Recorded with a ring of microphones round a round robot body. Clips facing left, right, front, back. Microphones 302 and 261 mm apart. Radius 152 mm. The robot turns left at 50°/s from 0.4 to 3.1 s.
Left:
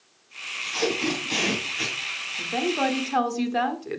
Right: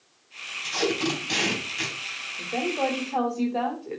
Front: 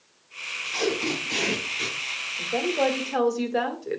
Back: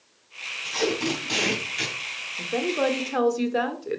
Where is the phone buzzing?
I don't hear a phone buzzing.